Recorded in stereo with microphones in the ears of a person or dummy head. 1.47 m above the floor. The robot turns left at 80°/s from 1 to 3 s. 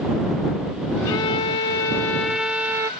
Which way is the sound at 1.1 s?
20° left (ahead or behind).